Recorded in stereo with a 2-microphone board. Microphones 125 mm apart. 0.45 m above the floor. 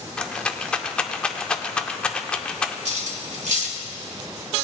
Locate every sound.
0.2 s a rattle: 10° left (ahead or behind), 0.5 m
2.9 s cutlery clinking: 75° right (ahead or behind), 1.4 m